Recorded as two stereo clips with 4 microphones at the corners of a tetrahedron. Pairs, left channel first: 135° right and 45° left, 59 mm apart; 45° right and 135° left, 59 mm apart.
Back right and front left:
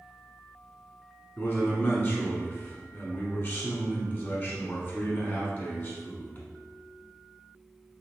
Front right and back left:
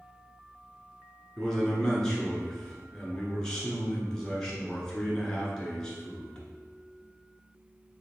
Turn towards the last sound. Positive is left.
turn(degrees=-115)